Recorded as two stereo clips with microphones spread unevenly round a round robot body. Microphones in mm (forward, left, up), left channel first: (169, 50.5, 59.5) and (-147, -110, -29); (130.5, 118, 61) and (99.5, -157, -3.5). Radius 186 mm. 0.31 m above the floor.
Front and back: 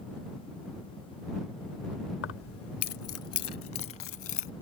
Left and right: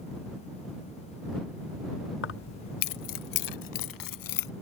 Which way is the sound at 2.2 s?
75° left.